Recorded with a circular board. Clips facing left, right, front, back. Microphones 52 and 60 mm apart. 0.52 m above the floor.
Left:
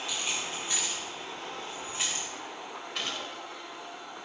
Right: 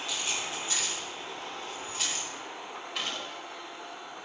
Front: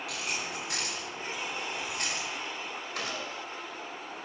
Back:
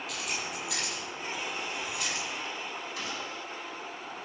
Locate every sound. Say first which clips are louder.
0.1 s keys jangling: right 1 dB, front 1 dB; 15° left, 8.5 m; by 2.2 s 25° left, 7 m
3.0 s a gunshot: even, front 1 dB; straight ahead, 2.5 m